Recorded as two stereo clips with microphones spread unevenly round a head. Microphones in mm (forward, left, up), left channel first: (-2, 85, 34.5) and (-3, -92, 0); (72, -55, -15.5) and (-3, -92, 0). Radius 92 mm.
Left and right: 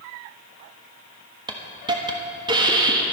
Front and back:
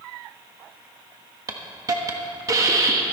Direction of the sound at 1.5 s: 160° right.